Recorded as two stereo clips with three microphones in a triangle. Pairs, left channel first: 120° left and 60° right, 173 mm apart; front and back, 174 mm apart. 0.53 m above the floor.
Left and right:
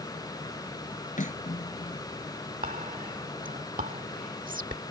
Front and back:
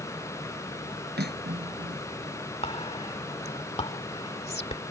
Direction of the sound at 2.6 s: 45° right.